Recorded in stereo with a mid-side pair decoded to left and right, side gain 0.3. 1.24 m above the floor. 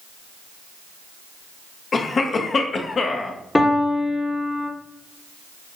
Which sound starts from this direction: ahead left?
A cough, at 1.9 s.